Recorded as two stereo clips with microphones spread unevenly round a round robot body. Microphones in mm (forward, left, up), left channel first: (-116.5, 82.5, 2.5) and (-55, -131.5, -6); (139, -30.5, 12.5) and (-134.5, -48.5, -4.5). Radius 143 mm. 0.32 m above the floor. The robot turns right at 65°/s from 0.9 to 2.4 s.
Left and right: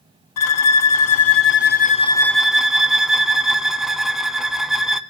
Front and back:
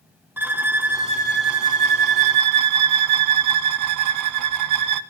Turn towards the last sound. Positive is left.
turn(degrees=-160)